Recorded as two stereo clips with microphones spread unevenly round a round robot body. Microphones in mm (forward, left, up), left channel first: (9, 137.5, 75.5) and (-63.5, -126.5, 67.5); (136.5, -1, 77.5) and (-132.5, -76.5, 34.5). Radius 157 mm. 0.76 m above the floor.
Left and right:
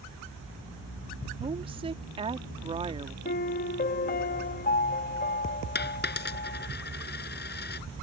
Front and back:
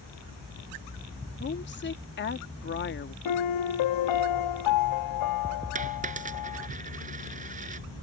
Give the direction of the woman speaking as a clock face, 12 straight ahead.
1 o'clock.